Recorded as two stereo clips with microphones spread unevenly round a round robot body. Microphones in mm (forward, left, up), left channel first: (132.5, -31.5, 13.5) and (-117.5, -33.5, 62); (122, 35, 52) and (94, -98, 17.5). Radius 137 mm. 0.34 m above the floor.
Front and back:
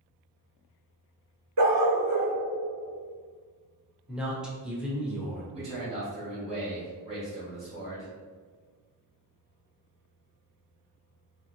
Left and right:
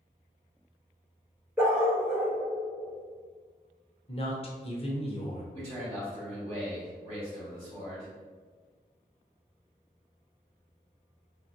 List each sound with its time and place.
1.6 s a dog barking: 175° left, 1.8 m
4.1 s a woman speaking: 75° left, 1.0 m
5.5 s a man speaking: 115° right, 1.7 m